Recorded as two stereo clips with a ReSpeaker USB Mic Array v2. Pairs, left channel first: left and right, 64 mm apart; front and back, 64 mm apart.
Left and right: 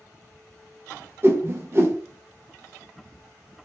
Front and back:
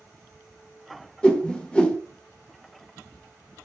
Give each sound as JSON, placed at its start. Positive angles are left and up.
{"t": 1.2, "sound": "a whoosh", "azimuth_deg": -70, "distance_m": 0.5}